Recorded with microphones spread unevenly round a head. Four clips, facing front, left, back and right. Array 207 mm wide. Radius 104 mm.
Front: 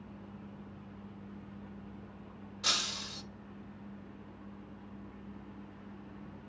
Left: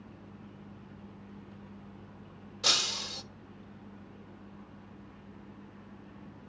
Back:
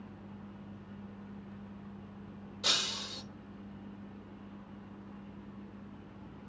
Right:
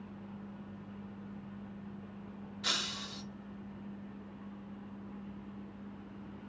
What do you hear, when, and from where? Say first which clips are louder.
2.6 s breaking glass: left 5 dB, even; 105° left, 0.8 m